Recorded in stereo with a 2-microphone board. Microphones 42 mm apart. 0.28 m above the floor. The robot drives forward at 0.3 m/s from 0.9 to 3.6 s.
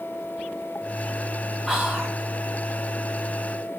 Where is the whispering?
10° right (ahead or behind), 1.3 m.